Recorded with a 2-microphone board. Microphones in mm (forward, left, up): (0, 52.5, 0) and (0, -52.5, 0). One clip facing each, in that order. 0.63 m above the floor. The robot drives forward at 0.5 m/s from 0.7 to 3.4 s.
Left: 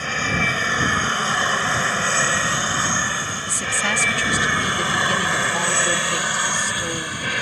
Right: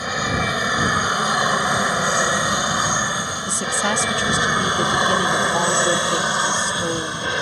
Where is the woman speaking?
25° right (ahead or behind).